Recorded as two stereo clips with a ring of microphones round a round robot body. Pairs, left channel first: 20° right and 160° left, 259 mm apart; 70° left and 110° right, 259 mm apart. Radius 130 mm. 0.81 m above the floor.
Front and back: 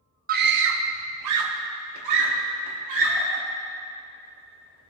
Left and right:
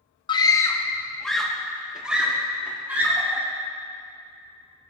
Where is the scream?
130° left, 0.7 m; by 3.4 s 165° left, 2.5 m.